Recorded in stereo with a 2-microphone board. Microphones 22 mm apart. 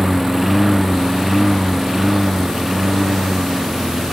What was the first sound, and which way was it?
A lawn mower, 5° right (ahead or behind).